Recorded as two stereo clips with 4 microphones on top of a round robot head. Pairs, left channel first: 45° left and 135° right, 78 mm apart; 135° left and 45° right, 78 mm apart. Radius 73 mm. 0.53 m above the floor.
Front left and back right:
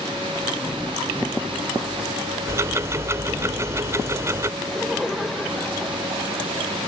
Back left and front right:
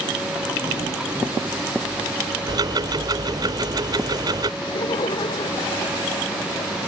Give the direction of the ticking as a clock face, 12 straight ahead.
3 o'clock.